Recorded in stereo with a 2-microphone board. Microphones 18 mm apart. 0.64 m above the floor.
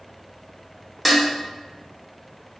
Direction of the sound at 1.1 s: Centre (ahead or behind).